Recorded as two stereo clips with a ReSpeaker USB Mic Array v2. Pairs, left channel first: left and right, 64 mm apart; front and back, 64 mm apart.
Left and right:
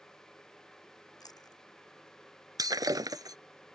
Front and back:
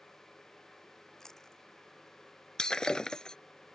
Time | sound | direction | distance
1.2 | chewing | 80° left | ?
2.6 | breaking glass | 80° right | ?